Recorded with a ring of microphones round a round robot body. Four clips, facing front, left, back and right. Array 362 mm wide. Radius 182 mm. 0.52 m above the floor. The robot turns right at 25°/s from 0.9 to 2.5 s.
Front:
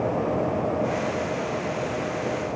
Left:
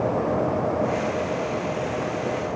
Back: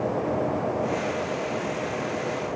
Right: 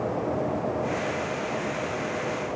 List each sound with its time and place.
Only background noise.